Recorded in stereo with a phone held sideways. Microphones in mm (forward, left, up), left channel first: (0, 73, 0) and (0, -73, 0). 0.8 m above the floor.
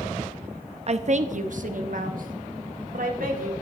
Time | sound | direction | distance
0.9 | a woman speaking | 45° right (ahead or behind) | 0.7 m